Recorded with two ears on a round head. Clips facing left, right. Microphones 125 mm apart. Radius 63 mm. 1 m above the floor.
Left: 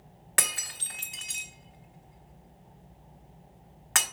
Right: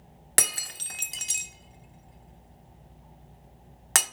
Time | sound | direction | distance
0.4 | breaking glass | 45° right (ahead or behind) | 1.1 m